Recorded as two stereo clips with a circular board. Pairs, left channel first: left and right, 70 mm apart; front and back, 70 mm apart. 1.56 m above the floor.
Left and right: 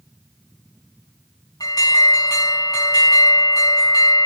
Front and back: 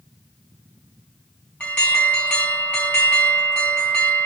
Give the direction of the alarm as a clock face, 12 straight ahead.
10 o'clock.